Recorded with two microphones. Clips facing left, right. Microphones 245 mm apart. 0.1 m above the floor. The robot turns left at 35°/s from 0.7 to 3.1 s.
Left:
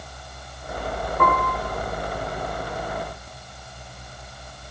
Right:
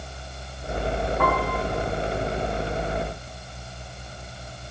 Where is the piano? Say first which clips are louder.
Left 2 dB; 60° left (ahead or behind), 6.5 m; by 1.6 s 70° left (ahead or behind), 6.5 m.